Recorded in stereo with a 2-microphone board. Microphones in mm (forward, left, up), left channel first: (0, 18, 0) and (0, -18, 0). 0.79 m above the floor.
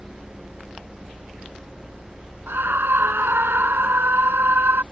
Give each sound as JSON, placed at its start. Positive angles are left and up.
{"t": 2.5, "sound": "a scream", "side_deg": -85}